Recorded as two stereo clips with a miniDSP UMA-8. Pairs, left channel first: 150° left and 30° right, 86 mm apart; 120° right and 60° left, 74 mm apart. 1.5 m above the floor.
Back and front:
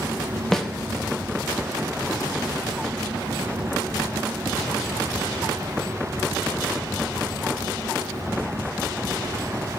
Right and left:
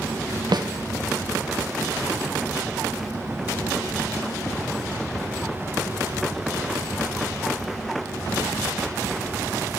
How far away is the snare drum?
About 0.9 m.